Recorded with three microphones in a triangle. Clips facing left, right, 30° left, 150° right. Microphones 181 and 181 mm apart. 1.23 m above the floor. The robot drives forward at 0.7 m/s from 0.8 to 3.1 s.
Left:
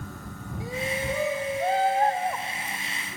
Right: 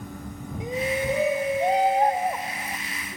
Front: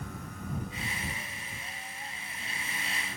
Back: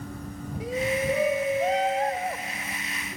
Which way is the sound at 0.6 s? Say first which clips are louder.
Right 4 dB, back 13 dB; 160° right.